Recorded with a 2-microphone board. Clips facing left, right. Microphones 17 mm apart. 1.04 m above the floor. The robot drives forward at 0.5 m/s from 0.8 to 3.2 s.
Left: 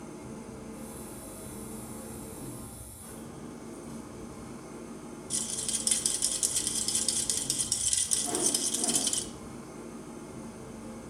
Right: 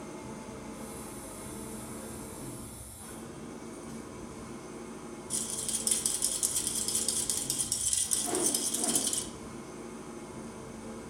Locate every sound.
0.0 s an engine running: 75° right (ahead or behind), 1.6 m; by 11.1 s 45° right (ahead or behind), 2 m
5.3 s a rattle: 20° left (ahead or behind), 0.5 m
8.2 s a whoosh: 20° right (ahead or behind), 0.6 m